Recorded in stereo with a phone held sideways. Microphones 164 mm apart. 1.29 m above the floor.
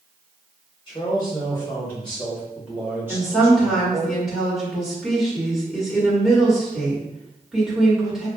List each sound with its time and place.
0.9 s a man speaking: 30° left (ahead or behind), 1.5 m; by 4.1 s 30° right (ahead or behind), 1.7 m
3.1 s a woman speaking: centre (ahead or behind), 1.7 m